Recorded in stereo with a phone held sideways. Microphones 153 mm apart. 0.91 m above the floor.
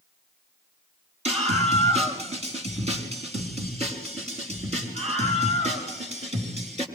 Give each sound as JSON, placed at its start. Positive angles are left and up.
{"t": 1.2, "sound": "a scream", "side_deg": -45, "distance_m": 6.0}